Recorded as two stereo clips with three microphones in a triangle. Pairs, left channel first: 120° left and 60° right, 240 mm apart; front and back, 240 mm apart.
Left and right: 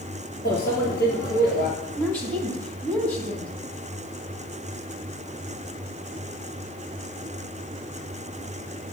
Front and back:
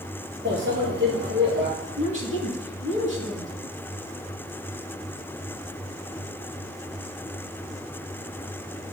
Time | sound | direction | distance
0.5 | a microwave | 155° left | 2 m
2.0 | a woman speaking | 160° right | 3.5 m